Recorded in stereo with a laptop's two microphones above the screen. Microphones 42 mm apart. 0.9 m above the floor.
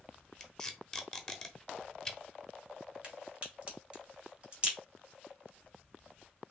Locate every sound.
0.4 s tape being pulled: 10° left (ahead or behind), 0.9 m
3.0 s a crack: 25° right (ahead or behind), 2 m